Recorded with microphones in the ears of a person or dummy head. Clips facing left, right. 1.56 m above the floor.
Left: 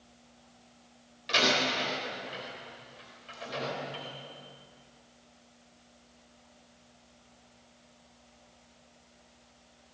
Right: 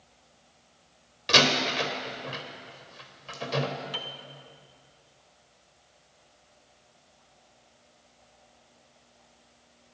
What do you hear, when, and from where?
1.3 s a door slam: 70° right (ahead or behind), 4 m
3.9 s a piano: 60° right (ahead or behind), 2 m